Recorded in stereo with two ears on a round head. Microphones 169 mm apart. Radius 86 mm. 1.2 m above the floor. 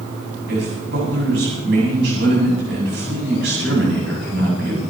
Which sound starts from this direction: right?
A man speaking, at 0.5 s.